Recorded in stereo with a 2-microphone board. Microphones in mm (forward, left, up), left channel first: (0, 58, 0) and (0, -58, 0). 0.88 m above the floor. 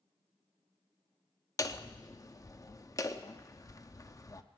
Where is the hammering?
30° left (ahead or behind), 0.6 m.